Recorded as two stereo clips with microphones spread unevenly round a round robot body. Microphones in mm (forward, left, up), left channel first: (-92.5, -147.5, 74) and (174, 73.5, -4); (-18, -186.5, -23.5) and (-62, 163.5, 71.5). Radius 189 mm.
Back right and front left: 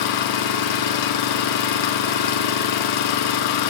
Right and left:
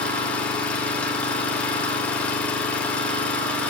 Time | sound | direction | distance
0.0 | an engine running | 150° right | 1.1 m